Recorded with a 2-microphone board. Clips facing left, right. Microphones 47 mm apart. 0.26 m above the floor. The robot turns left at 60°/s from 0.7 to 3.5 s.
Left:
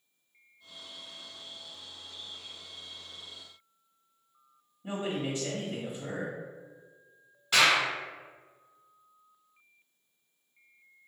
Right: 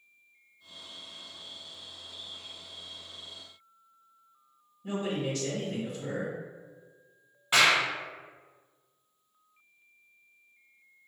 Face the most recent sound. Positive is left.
turn(degrees=-20)  # may be behind; listen again after turning